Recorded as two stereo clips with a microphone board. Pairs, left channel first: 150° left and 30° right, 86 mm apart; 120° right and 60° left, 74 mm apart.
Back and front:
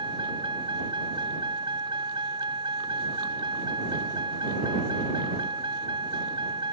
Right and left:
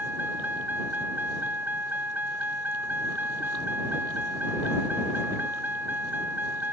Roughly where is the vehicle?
Ahead.